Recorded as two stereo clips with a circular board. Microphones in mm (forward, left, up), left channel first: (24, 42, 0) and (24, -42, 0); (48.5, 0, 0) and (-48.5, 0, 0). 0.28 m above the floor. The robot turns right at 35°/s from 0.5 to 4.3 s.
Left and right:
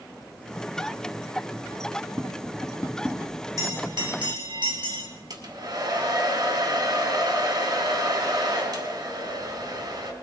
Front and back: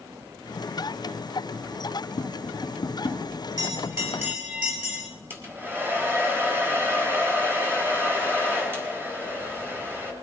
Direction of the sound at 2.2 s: 5° right.